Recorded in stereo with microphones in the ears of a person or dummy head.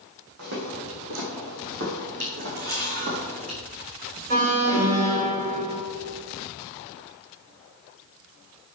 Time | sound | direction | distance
0.4 | footsteps | 65° right (ahead or behind) | 4 m
2.6 | a camera shutter | 50° right (ahead or behind) | 2.5 m
4.3 | an alarm | 50° right (ahead or behind) | 2.5 m